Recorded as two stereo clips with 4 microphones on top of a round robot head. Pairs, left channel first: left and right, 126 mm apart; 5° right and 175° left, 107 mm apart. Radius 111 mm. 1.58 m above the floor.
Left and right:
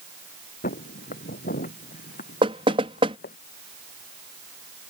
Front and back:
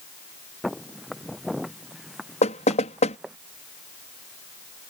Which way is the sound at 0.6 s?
85° left.